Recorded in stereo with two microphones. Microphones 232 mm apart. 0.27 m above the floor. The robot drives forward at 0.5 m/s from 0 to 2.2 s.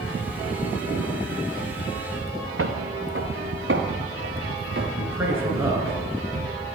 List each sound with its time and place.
2.6 s footsteps: 70° right (ahead or behind), 1.6 m; by 6.0 s 50° right (ahead or behind), 4.5 m
5.0 s a man speaking: 10° right (ahead or behind), 4 m